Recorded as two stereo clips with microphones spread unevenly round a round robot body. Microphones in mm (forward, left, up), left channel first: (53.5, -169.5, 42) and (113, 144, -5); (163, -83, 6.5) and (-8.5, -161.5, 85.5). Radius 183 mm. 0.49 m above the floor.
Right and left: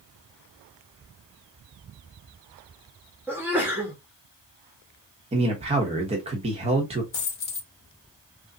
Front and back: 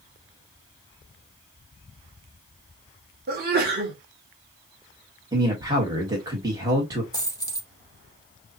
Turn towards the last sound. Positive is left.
turn(degrees=-50)